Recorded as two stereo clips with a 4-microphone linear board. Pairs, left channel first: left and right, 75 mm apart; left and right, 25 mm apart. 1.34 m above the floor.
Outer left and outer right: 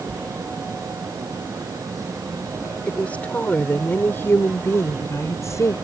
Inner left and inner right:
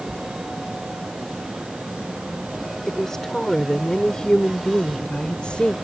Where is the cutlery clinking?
No cutlery clinking in this recording.